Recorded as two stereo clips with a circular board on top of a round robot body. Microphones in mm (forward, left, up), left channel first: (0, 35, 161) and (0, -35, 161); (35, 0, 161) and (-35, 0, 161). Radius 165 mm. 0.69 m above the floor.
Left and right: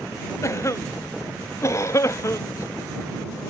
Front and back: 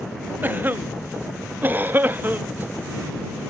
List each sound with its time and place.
0.4 s a cough: 125° left